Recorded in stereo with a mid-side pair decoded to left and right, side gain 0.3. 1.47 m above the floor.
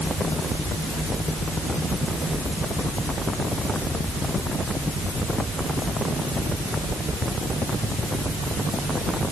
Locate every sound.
Only background noise.